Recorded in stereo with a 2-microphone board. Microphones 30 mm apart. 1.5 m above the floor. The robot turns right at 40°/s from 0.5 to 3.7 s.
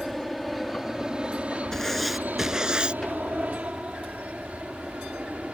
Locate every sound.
0.0 s an aircraft: centre (ahead or behind); by 5.5 s 45° right (ahead or behind)
1.7 s writing: 165° left; by 3.0 s 145° right